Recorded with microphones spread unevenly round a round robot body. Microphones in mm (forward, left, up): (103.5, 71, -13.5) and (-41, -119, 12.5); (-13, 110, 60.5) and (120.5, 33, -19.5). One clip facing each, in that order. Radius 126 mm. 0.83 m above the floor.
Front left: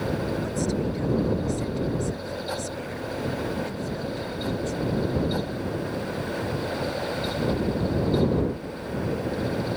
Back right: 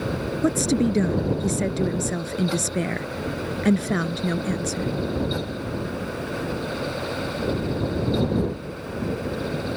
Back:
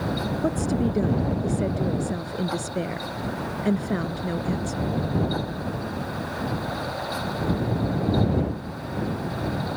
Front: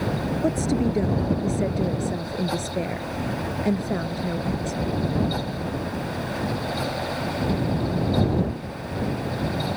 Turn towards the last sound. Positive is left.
turn(degrees=-130)